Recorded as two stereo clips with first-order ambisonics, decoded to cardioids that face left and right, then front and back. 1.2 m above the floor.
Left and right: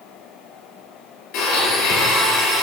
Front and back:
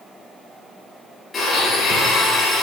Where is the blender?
75° left, 5 m.